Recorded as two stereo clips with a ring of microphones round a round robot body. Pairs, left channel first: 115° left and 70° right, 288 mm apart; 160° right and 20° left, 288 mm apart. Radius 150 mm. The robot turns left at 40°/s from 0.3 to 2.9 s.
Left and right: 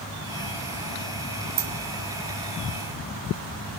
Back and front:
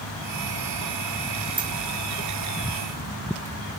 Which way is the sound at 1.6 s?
50° right.